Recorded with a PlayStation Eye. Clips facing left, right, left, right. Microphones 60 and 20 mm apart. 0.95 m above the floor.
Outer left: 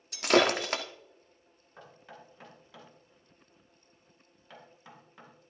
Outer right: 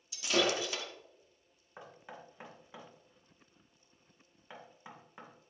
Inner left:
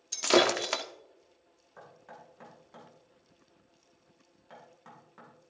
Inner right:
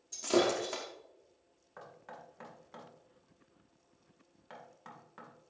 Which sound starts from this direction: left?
Breaking glass, at 0.1 s.